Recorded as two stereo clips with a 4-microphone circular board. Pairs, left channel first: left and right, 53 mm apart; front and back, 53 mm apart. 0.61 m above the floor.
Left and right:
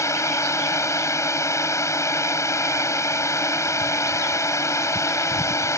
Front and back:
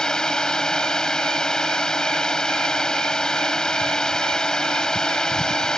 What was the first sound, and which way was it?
A drone, 75° left.